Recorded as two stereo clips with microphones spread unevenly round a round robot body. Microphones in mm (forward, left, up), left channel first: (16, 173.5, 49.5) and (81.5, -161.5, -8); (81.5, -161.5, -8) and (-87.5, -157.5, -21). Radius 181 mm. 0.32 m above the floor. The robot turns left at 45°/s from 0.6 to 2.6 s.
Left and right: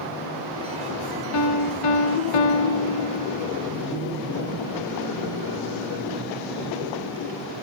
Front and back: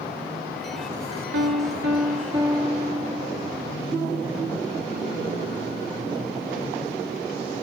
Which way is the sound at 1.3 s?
150° left.